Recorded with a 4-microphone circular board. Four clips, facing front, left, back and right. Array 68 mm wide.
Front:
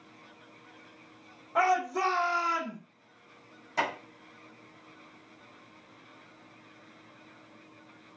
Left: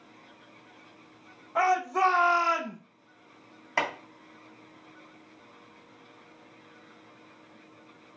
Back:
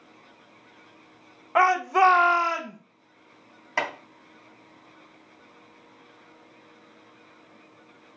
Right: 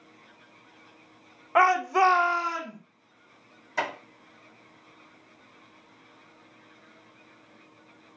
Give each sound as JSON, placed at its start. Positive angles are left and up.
{"t": 1.6, "sound": "a shout", "azimuth_deg": -125, "distance_m": 1.0}
{"t": 3.8, "sound": "chopping", "azimuth_deg": 130, "distance_m": 2.5}